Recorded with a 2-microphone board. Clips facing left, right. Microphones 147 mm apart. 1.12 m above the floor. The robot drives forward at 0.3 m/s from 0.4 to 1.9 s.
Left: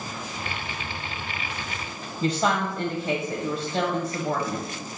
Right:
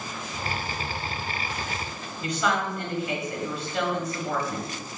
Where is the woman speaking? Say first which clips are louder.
Left 3 dB; 40° left (ahead or behind), 0.7 m.